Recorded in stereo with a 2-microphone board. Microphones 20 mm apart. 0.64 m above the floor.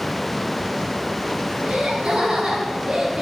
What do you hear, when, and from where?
1.6 s laughter: 65° right (ahead or behind), 5.5 m; by 3.2 s 55° right (ahead or behind), 3.5 m